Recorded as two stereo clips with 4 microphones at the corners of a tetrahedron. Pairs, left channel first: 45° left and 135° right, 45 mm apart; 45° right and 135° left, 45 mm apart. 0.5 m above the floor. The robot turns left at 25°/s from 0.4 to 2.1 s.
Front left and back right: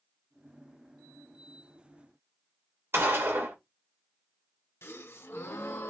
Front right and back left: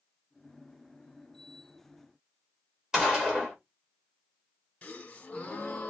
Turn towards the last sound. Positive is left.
turn(degrees=20)